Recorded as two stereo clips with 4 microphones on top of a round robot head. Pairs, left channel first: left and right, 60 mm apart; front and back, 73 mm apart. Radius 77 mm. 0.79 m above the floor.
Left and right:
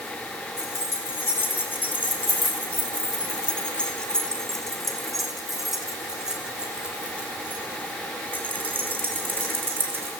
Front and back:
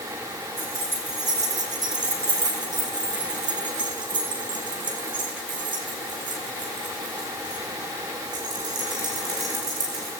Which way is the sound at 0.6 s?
140° left.